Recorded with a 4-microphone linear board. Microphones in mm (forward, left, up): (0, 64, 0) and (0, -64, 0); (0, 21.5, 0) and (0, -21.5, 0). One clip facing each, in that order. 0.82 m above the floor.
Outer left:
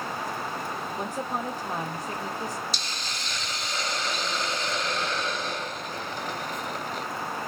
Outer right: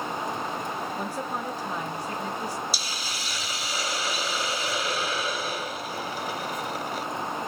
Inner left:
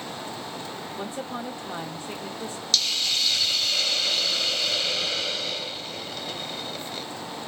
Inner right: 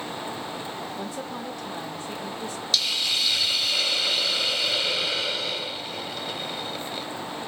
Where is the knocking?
No knocking in this recording.